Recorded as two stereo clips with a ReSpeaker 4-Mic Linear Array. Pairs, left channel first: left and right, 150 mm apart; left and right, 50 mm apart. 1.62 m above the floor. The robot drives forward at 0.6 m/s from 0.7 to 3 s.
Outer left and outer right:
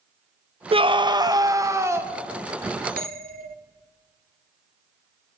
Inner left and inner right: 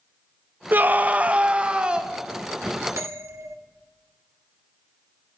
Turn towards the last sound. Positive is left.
turn(degrees=-65)  # may be behind; listen again after turning